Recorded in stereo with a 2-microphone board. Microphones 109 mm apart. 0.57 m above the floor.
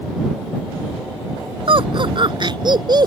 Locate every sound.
1.7 s laughter: 50° right (ahead or behind); by 3.1 s 40° right (ahead or behind)